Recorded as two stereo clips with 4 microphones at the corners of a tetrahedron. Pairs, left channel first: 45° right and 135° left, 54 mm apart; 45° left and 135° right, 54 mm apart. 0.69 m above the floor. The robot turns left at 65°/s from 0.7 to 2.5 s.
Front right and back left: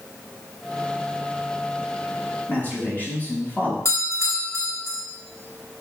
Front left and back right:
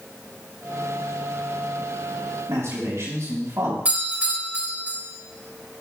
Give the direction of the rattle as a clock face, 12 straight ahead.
No rattle in this recording.